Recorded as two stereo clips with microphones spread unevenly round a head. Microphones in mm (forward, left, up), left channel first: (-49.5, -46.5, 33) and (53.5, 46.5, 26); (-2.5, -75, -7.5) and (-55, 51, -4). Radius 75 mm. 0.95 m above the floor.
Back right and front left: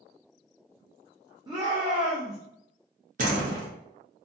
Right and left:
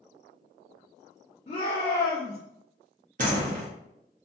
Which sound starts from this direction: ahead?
A shout, at 1.5 s.